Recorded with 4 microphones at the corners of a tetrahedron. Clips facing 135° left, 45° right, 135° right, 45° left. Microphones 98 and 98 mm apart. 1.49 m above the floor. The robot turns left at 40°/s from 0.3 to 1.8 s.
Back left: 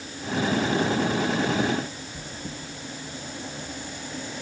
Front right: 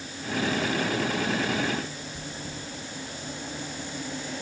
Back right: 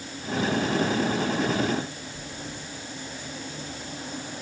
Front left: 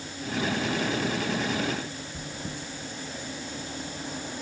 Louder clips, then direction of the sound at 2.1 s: Even, front left 1 dB; 55° left.